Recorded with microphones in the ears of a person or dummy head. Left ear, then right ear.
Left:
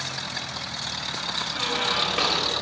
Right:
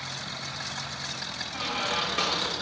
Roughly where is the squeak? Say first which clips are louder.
Left 3 dB; centre.